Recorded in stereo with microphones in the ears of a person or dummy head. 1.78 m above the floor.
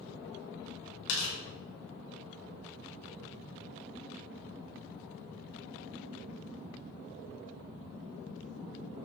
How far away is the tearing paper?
About 2.5 m.